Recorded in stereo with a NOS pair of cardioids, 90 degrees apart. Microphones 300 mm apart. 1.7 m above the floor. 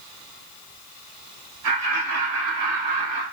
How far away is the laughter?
About 2 m.